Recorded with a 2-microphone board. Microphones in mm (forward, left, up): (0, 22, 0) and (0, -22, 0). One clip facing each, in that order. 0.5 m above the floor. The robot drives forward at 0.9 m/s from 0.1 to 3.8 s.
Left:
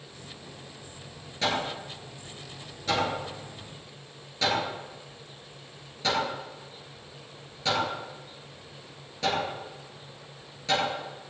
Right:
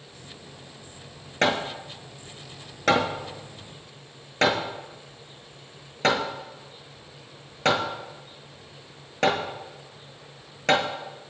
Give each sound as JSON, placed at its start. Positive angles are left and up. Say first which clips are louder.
{"t": 1.4, "sound": "hammering", "louder": "right 5 dB", "side_deg": -65, "distance_m": 2.5}